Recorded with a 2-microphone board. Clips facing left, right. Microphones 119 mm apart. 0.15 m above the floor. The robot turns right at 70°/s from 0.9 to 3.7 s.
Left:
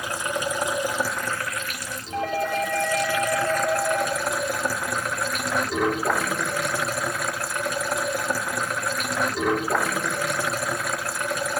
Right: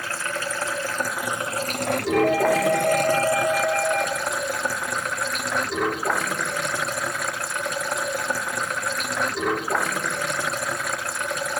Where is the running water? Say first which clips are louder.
Left 2 dB; 165° left, 0.9 m; by 11.6 s straight ahead, 0.9 m.